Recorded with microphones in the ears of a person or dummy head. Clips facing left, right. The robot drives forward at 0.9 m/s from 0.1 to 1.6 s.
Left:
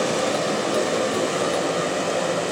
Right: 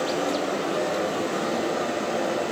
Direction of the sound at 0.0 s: 90° left.